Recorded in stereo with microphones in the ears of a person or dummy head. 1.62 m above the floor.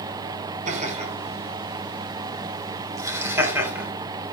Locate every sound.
0.7 s laughter: 40° right (ahead or behind), 6 m; by 3.9 s 10° right (ahead or behind), 6.5 m